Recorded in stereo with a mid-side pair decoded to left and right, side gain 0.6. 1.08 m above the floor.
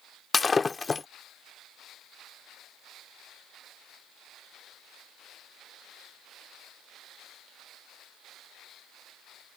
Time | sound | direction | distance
0.3 | breaking glass | 25° left | ?